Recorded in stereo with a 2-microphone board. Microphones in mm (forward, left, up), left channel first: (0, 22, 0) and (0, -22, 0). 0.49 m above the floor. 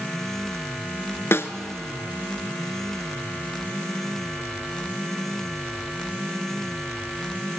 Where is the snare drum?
70° left (ahead or behind), 1.2 m.